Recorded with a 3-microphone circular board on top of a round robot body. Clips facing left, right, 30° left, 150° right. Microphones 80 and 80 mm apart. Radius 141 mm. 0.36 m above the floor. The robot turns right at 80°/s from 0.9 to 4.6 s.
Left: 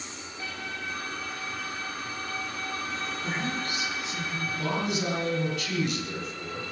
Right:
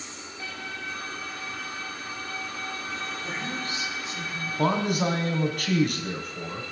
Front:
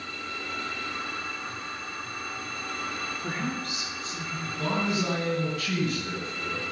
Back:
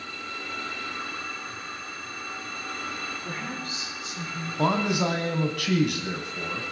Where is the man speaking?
130° right, 3.5 m.